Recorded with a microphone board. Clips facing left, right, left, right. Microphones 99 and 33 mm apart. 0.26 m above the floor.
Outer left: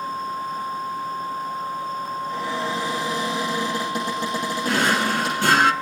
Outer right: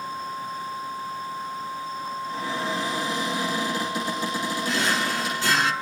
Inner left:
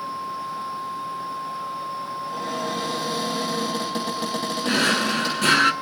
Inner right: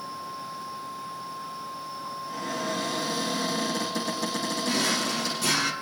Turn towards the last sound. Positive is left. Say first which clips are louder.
# outer left 6 dB, inner left 7 dB
turn(degrees=60)  # may be behind; listen again after turning